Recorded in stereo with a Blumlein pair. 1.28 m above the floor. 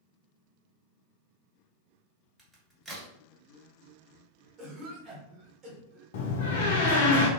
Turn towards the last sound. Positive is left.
turn(degrees=50)